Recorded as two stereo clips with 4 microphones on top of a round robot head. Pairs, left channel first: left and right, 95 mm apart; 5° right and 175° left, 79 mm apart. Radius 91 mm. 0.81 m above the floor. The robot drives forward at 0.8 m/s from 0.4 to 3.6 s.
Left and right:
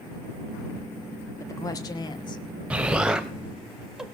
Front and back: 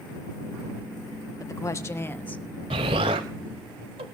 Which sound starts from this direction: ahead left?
A woman speaking, at 1.4 s.